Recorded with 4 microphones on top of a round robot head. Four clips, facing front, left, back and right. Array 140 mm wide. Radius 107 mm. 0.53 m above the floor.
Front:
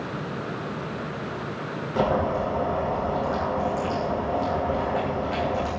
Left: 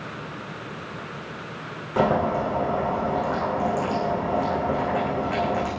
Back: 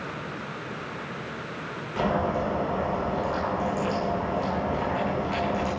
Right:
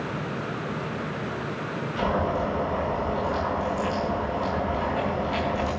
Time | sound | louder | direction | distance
2.0 | boiling | left 5 dB, front 2 dB | 65° left | 10 m